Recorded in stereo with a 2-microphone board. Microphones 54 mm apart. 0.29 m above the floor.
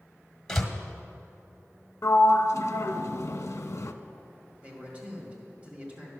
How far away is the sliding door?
About 0.6 m.